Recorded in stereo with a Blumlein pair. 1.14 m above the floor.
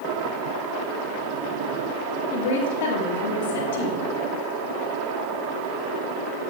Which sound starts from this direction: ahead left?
A woman speaking, at 2.3 s.